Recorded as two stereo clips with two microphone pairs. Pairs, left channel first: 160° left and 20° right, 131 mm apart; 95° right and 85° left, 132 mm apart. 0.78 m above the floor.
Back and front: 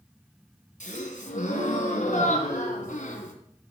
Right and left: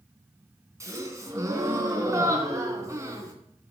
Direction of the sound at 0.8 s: 155° left.